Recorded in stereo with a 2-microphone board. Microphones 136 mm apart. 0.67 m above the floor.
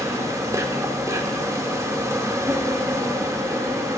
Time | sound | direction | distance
0.0 | an insect | 20° right (ahead or behind) | 0.7 m